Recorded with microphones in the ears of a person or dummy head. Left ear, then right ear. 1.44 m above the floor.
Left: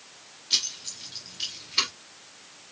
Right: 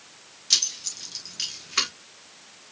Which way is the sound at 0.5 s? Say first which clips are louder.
Right 3 dB; 75° right (ahead or behind).